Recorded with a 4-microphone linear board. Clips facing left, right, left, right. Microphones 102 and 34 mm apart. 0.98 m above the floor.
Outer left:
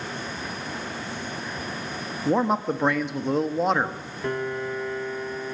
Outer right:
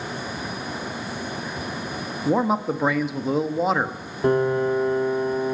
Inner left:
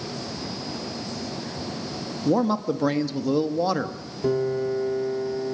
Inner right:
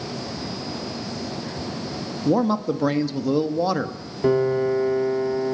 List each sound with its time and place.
2.2 s a man speaking: 5° right (ahead or behind), 1.3 m
4.2 s a piano: 35° right (ahead or behind), 1.0 m